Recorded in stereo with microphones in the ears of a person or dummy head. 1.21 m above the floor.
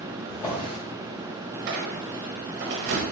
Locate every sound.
0.3 s a drawer: 25° left (ahead or behind), 1.4 m
1.7 s a squeak: 60° right (ahead or behind), 0.8 m